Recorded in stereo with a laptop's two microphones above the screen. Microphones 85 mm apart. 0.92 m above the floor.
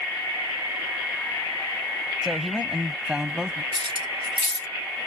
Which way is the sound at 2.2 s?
5° right (ahead or behind).